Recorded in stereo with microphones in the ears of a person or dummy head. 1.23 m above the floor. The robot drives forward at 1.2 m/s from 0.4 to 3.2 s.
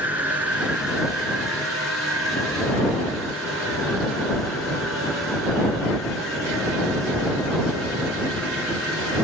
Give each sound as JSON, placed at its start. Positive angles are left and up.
{"t": 0.0, "sound": "an insect", "side_deg": -10, "distance_m": 1.7}